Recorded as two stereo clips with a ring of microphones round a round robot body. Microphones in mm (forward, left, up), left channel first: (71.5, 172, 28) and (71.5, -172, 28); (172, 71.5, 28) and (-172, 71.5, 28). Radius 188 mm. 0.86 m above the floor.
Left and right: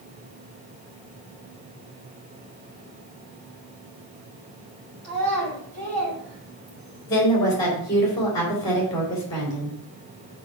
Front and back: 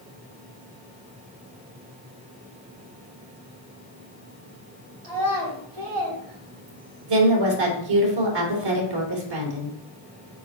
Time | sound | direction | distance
5.0 | a child speaking | 155° right | 4 m
7.1 | a woman speaking | 170° left | 3 m